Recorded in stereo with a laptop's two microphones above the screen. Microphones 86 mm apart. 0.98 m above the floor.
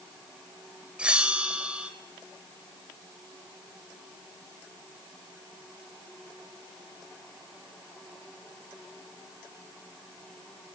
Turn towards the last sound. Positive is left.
turn(degrees=-15)  # may be behind; listen again after turning